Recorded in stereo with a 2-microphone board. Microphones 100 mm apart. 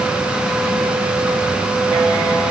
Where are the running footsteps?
No running footsteps in this recording.